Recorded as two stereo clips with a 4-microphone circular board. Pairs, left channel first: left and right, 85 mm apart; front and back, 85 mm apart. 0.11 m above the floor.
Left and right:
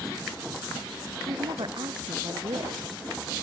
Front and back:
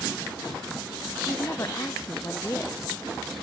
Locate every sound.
1.3 s a woman speaking: 55° right